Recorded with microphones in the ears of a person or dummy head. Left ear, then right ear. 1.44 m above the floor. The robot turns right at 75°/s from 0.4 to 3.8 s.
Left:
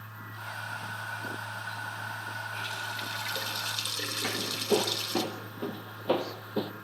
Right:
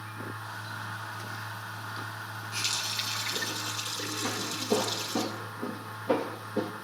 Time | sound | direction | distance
2.5 | a running tap | 55° right | 4.5 m
4.2 | footsteps | 40° left (ahead or behind) | 1.9 m